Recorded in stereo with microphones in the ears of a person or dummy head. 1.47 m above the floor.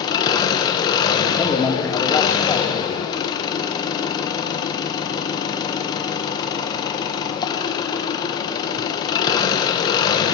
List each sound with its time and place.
0.0 s an engine running: 20° left (ahead or behind), 1.1 m
1.4 s a man speaking: 10° left (ahead or behind), 1.6 m